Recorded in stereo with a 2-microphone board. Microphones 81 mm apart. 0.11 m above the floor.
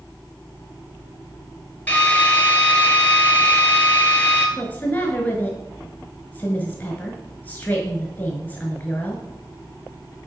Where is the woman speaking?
20° left (ahead or behind), 1.3 m.